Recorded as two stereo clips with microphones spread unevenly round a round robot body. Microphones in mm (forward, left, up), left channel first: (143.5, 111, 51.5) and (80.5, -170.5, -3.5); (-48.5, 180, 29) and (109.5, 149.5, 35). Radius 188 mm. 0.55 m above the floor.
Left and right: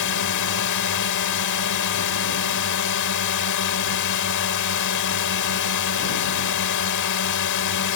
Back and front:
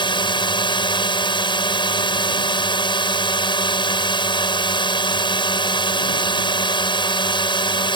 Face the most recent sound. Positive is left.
turn(degrees=115)